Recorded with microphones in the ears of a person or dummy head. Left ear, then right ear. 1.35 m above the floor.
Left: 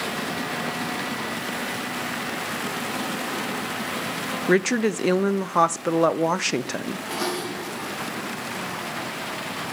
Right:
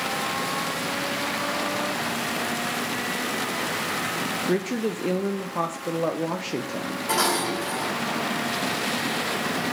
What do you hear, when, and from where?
4.5 s a woman speaking: 55° left (ahead or behind), 0.6 m
7.1 s dishes clattering: 50° right (ahead or behind), 3 m